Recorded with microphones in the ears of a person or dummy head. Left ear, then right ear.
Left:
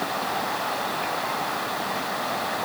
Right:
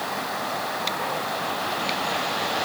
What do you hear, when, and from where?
Only background noise.